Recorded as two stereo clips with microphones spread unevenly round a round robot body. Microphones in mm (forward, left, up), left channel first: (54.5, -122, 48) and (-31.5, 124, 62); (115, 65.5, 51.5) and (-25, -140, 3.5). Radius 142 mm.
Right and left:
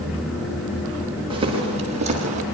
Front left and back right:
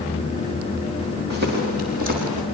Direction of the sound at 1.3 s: Straight behind.